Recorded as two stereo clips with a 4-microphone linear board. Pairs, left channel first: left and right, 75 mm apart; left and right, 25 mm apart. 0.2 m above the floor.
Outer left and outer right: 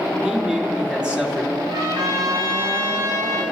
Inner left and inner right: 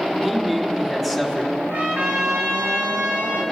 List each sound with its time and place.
0.2 s a man speaking: 10° right (ahead or behind), 3 m
1.7 s a trumpet: 85° right, 6.5 m